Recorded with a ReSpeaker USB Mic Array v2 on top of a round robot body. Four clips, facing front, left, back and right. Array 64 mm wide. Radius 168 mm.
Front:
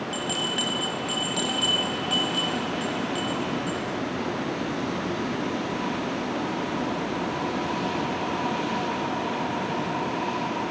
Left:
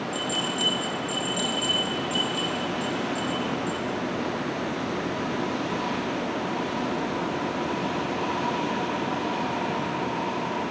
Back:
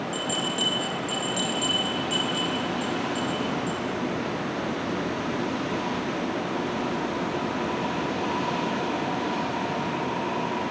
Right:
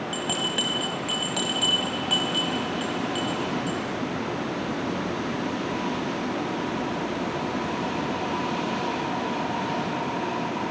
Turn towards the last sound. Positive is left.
turn(degrees=-80)